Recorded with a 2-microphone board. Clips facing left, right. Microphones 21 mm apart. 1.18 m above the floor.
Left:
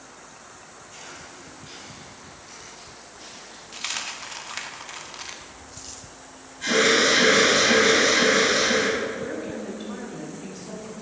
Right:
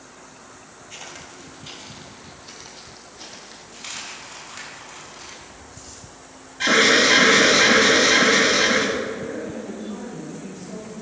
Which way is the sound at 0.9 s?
40° right (ahead or behind).